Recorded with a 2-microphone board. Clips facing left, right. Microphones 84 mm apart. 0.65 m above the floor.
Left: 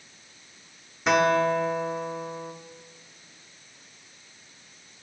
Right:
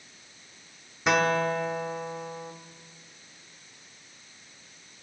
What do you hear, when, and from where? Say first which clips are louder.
1.1 s a guitar: left 3 dB; centre (ahead or behind), 0.5 m